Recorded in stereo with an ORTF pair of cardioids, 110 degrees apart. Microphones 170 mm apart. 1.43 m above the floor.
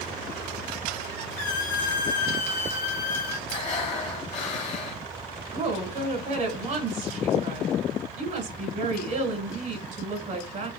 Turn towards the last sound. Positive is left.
turn(degrees=-50)